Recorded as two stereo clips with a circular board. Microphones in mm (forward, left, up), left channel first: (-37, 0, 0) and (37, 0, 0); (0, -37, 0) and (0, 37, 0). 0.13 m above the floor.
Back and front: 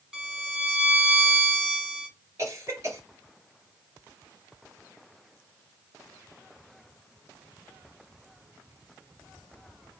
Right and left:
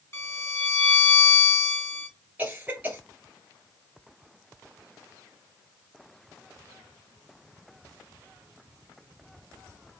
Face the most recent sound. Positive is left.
turn(degrees=30)